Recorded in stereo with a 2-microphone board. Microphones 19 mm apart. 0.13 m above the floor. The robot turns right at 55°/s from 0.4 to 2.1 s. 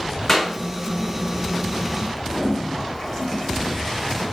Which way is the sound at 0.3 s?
20° left (ahead or behind).